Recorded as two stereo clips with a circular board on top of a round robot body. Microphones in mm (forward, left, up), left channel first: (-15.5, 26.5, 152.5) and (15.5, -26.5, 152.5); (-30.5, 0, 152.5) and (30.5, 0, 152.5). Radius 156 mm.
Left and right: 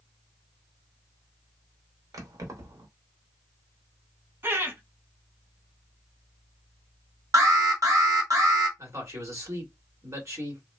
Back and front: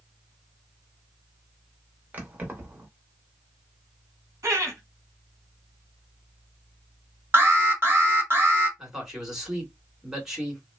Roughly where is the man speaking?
Right.